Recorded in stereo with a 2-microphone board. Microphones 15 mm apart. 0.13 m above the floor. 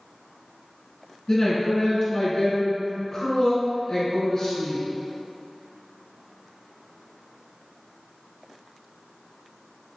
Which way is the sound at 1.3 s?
30° left (ahead or behind).